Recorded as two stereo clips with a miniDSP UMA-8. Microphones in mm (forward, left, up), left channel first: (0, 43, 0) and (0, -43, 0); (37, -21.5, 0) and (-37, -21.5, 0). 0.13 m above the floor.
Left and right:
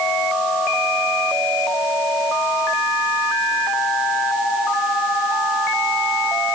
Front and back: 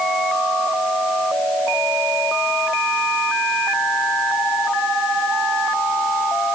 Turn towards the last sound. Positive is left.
No sound to turn to.